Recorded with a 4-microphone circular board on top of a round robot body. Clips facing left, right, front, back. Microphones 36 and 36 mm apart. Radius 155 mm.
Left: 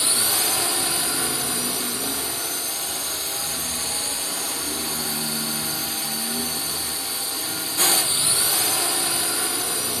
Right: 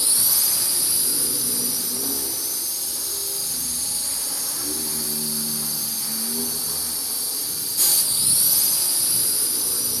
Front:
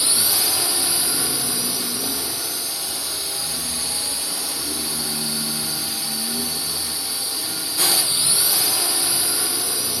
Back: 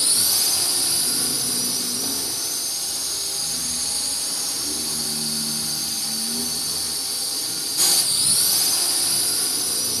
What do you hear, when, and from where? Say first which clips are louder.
0.0 s a drone: left 4 dB, front 2 dB; 65° left